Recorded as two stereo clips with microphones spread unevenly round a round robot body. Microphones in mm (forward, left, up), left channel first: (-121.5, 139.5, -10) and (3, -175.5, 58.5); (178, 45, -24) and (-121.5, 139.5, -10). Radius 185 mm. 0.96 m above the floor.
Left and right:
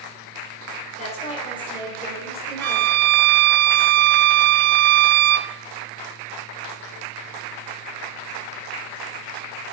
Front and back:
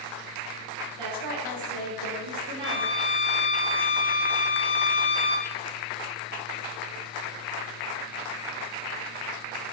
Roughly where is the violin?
Behind right.